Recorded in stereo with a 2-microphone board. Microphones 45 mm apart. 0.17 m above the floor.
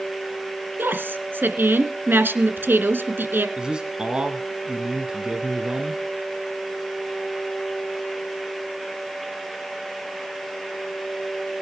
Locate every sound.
0.8 s a woman speaking: 55° right (ahead or behind), 2 m
3.6 s a man speaking: 20° right (ahead or behind), 1.4 m